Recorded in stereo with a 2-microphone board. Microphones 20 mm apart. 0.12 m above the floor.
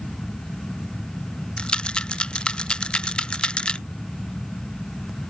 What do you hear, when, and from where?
1.6 s a rattle: 90° left